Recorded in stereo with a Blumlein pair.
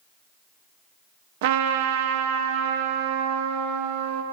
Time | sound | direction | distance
1.4 | a trumpet | 50° right | 0.7 m